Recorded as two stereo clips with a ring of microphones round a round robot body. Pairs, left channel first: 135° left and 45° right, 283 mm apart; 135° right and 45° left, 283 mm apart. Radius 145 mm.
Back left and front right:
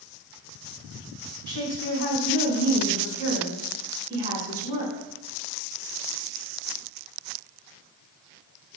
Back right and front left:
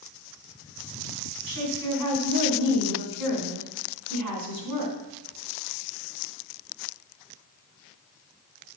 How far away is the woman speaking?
About 4.5 m.